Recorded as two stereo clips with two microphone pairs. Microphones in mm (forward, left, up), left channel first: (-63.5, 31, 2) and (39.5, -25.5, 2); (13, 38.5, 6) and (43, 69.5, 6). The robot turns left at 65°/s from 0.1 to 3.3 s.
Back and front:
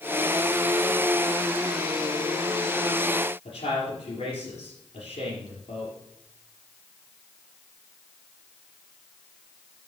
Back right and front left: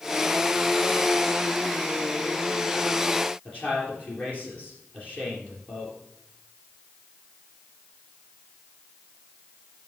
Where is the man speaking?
170° left, 4 m.